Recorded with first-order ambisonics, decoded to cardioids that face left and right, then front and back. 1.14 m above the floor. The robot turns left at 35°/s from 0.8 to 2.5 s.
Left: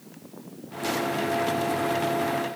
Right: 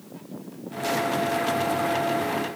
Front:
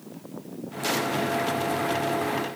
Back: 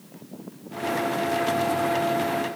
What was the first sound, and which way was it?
Only background noise.